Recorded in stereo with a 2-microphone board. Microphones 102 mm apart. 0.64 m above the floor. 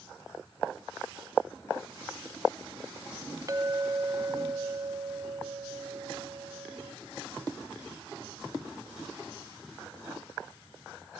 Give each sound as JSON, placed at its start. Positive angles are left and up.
{"t": 3.5, "sound": "a clink", "side_deg": -35, "distance_m": 0.6}